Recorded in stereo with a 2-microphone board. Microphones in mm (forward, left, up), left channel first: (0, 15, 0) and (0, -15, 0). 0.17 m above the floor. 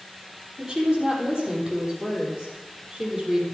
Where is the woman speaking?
25° right (ahead or behind), 5 m.